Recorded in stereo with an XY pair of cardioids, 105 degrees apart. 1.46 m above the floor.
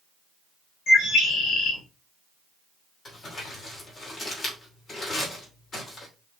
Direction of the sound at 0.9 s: 65° left.